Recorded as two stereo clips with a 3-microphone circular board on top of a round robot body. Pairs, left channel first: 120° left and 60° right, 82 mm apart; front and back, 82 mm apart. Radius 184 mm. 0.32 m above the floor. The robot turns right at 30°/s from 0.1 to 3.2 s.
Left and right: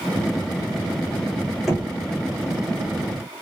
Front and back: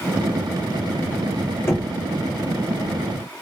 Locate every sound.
1.7 s knocking: 20° left, 1.3 m; by 1.9 s 25° left, 1.3 m